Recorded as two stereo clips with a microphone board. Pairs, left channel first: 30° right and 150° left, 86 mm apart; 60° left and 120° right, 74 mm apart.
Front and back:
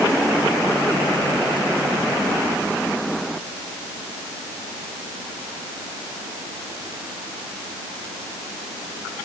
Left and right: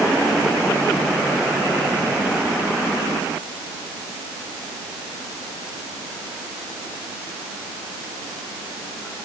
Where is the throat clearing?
I don't hear throat clearing.